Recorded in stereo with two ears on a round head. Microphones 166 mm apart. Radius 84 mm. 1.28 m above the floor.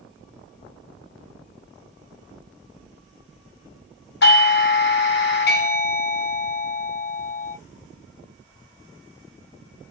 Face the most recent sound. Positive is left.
turn(degrees=60)  # may be behind; listen again after turning